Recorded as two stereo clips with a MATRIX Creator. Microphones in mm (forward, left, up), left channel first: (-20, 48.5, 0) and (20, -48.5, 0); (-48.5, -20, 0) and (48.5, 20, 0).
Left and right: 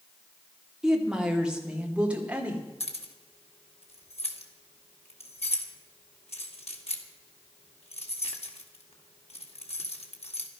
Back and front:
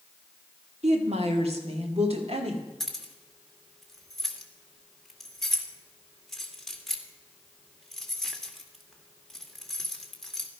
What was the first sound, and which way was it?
A woman speaking, 15° left.